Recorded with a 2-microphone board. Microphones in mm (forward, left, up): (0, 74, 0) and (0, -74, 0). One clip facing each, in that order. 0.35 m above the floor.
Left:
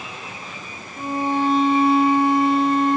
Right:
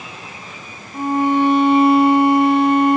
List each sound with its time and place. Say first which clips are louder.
0.9 s a violin: right 6 dB; 65° right (ahead or behind), 4 m